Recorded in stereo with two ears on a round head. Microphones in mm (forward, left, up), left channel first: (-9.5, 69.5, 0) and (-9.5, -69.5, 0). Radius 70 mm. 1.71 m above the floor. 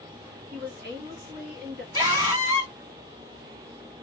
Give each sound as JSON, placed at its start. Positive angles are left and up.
{"t": 0.5, "sound": "a woman speaking", "side_deg": -70, "distance_m": 1.2}
{"t": 1.9, "sound": "a scream", "side_deg": -35, "distance_m": 1.6}